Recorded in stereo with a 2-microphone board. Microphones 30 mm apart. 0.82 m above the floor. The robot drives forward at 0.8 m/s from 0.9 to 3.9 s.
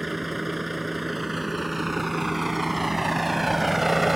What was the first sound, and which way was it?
A vehicle, centre (ahead or behind).